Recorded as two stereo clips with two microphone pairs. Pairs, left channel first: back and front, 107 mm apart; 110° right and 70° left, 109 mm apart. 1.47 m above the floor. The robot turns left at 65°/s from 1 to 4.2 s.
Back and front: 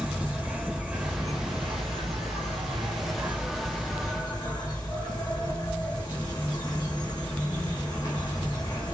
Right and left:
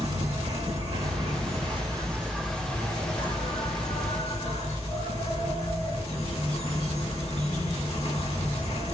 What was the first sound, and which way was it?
An insect, 75° left.